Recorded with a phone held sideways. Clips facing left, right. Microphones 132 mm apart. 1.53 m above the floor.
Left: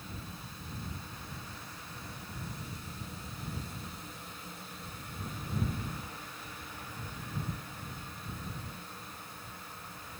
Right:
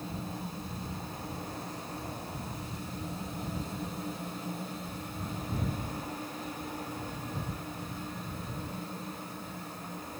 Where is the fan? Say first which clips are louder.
Right 8 dB; 45° right (ahead or behind).